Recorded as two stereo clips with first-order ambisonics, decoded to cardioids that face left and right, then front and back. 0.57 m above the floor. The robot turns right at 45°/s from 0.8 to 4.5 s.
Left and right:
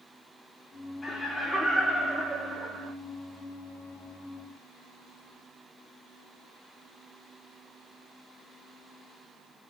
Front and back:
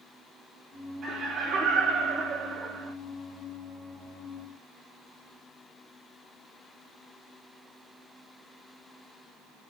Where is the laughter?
145° left, 0.6 m; by 2.9 s 125° right, 0.6 m.